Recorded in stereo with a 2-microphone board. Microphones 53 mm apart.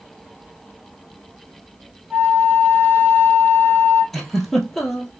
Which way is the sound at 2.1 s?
25° right (ahead or behind).